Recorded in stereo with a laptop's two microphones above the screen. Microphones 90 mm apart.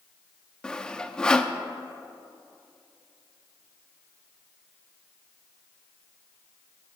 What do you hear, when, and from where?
0.6 s sawing: 10° left (ahead or behind), 0.5 m